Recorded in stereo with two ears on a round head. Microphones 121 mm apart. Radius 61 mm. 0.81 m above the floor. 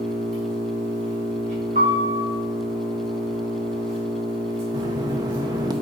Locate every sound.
0.0 s an engine running: 60° right (ahead or behind), 4 m
1.8 s a piano: 50° right (ahead or behind), 2.0 m
4.7 s knocking: 30° right (ahead or behind), 0.7 m